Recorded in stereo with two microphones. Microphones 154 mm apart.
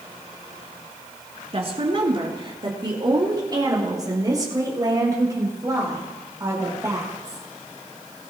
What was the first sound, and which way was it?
A woman speaking, 40° right (ahead or behind).